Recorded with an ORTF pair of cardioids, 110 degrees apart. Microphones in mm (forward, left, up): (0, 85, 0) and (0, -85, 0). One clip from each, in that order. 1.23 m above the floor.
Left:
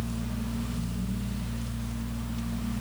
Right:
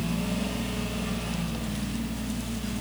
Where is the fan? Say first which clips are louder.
Right 6 dB; 35° left, 0.8 m.